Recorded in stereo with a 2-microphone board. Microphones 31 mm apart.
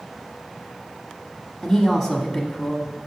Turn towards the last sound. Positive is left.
turn(degrees=0)  # may be behind; listen again after turning